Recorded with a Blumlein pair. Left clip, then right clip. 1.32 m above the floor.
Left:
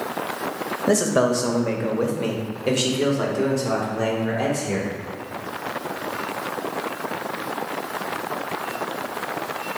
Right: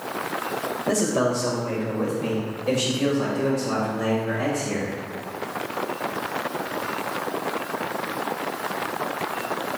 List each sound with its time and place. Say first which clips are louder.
0.9 s a man speaking: left 4 dB; 15° left, 1.3 m; by 4.9 s 60° left, 3.5 m